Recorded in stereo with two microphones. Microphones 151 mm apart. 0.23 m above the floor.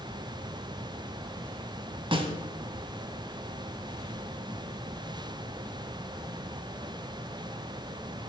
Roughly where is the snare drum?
Right.